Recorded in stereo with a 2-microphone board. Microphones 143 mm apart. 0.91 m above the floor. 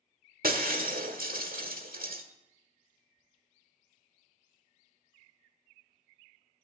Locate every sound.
0.4 s breaking glass: 85° right, 1.5 m